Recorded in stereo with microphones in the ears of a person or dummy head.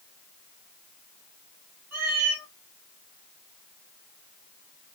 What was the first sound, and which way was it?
A cat meowing, 50° right (ahead or behind).